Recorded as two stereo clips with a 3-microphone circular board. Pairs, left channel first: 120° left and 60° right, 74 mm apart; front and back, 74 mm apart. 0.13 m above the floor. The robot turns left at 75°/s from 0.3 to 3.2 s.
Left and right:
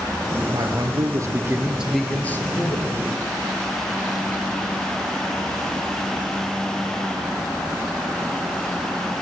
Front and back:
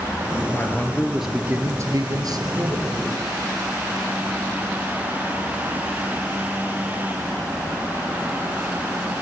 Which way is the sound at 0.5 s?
45° right.